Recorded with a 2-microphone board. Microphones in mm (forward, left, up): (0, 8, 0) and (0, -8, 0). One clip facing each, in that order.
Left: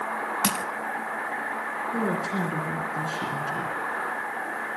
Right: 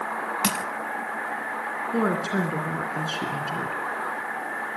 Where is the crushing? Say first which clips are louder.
Right 1 dB; 10° right (ahead or behind), 0.6 m.